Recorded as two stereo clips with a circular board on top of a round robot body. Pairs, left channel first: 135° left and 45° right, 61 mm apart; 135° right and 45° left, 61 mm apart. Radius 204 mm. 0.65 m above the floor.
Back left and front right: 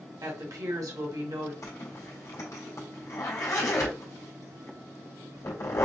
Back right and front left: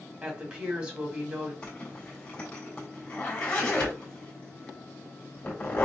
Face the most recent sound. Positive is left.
turn(degrees=160)